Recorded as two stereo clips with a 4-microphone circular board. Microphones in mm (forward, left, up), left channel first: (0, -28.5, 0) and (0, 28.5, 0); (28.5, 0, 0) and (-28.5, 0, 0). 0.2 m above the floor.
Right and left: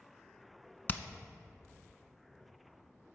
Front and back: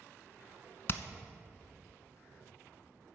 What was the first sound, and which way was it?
Hammering, 40° right.